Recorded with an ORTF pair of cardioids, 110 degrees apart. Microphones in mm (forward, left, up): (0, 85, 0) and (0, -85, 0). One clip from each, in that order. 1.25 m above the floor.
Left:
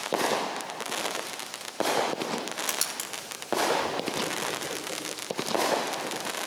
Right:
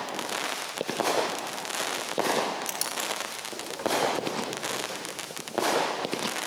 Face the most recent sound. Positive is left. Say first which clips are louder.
# right 1 dB
turn(degrees=15)